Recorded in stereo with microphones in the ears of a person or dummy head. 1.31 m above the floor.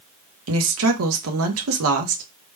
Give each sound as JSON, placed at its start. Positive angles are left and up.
{"t": 0.5, "sound": "a woman speaking", "side_deg": -80, "distance_m": 0.9}